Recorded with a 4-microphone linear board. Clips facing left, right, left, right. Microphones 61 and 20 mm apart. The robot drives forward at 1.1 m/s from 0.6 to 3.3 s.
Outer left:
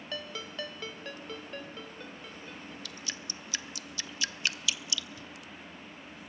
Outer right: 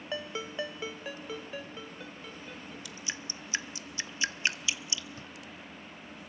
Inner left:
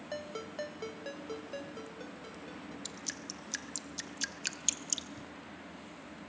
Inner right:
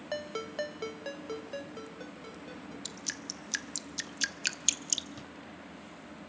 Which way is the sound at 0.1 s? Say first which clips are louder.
Outer right 4 dB, inner right 5 dB; 20° right (ahead or behind).